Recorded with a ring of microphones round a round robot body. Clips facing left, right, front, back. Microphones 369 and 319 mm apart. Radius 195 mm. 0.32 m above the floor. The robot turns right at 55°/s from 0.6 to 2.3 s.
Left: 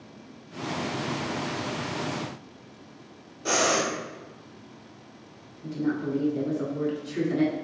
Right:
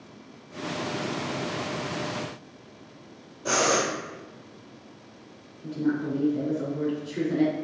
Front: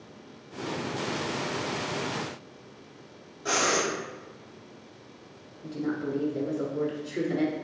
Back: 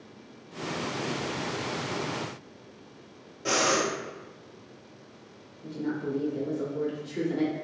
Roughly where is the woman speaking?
Ahead left.